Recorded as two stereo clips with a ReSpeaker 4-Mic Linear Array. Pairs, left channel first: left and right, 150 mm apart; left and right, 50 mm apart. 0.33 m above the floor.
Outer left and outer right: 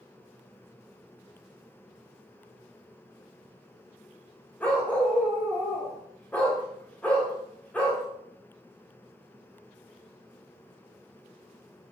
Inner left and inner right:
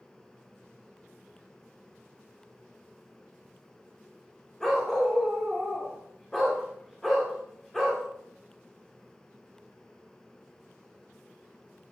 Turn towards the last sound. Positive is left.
turn(degrees=10)  # may be behind; listen again after turning